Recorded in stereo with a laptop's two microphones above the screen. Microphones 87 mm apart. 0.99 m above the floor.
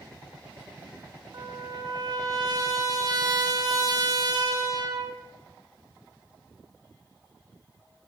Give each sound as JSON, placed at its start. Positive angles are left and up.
{"t": 1.3, "sound": "a trumpet", "side_deg": -45, "distance_m": 1.9}